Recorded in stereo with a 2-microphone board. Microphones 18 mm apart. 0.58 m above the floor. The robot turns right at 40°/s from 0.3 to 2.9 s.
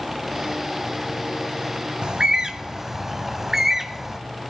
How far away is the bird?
About 0.8 m.